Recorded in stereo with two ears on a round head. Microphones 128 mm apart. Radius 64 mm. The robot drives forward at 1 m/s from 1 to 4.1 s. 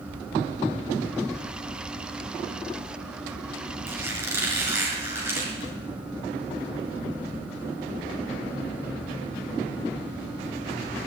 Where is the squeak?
20° right (ahead or behind), 5 m.